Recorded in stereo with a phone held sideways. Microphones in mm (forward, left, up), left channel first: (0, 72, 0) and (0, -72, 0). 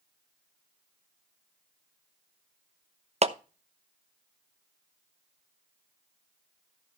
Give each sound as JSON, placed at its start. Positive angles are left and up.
{"t": 3.2, "sound": "a clap", "side_deg": -50, "distance_m": 0.7}